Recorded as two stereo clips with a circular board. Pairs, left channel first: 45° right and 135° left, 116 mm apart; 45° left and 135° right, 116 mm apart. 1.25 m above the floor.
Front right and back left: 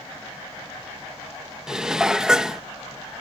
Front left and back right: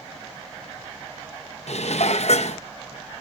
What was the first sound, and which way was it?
Dishes clattering, 50° left.